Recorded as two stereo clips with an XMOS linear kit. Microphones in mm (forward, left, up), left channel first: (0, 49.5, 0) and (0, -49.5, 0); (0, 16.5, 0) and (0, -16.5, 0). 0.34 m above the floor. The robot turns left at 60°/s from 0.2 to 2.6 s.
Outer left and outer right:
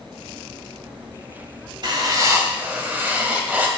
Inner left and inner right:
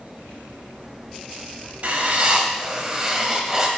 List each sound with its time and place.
1.8 s writing: 110° right, 1.3 m; by 3.7 s 155° right, 1.3 m